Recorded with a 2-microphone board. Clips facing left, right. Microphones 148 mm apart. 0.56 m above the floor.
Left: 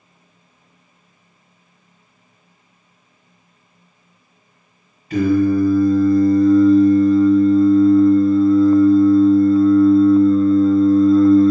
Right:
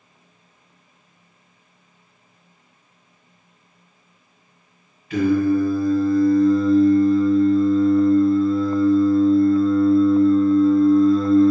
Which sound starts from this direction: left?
Singing, at 5.1 s.